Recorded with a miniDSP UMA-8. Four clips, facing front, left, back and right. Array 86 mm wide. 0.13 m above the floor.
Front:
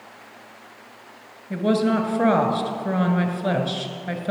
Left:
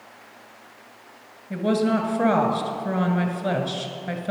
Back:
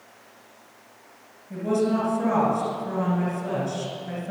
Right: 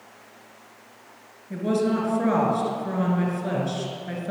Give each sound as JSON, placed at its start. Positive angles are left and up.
{"t": 1.5, "sound": "a woman speaking", "azimuth_deg": 30, "distance_m": 2.0}